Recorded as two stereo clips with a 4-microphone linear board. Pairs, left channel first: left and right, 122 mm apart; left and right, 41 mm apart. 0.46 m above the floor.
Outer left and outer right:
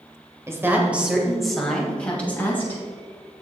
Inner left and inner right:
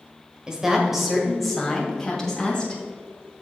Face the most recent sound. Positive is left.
turn(degrees=20)  # may be behind; listen again after turning